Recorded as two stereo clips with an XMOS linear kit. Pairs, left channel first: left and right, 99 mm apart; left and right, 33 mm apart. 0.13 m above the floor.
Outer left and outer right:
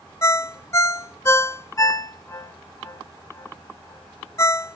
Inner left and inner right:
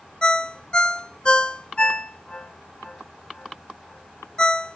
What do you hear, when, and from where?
0.2 s a ringtone: 30° left (ahead or behind), 0.5 m